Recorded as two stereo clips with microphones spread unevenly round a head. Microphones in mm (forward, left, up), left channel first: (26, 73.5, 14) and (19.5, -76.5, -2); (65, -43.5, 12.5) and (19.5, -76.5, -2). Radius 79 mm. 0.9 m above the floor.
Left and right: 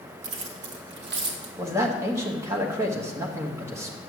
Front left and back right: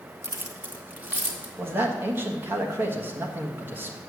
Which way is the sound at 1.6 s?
155° right.